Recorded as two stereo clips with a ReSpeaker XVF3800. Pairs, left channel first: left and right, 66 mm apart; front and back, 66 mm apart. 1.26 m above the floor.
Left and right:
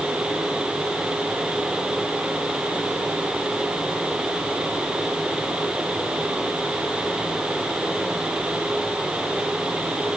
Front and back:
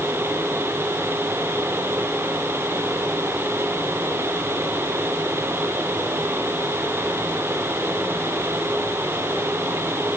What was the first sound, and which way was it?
Only background noise.